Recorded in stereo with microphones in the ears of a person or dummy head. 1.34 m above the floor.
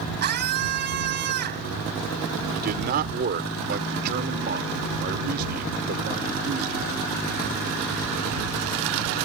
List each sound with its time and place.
0.2 s a scream: 60° right (ahead or behind)
2.5 s a man speaking: 45° right (ahead or behind)